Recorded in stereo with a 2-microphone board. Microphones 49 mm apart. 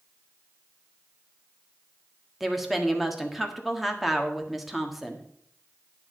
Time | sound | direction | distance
2.4 | a woman speaking | 5° right (ahead or behind) | 1.6 m